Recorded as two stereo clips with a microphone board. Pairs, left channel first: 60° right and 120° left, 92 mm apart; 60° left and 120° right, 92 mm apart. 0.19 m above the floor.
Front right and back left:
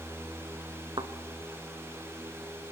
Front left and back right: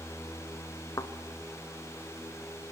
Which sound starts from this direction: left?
A thud, at 1.0 s.